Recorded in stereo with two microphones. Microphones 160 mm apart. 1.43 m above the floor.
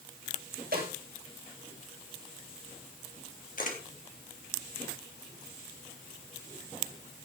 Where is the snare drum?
85° right, 9 m.